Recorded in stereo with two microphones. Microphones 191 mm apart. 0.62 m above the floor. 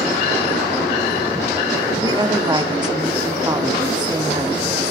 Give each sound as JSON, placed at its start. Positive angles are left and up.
{"t": 2.0, "sound": "a woman speaking", "side_deg": -20, "distance_m": 1.3}